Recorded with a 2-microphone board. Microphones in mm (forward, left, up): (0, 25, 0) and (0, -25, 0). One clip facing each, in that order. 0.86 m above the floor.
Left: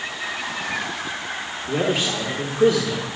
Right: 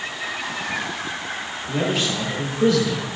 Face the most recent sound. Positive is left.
turn(degrees=40)  # may be behind; listen again after turning